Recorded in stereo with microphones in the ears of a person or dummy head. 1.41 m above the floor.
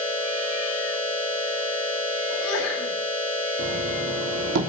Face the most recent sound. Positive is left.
turn(degrees=-60)  # may be behind; listen again after turning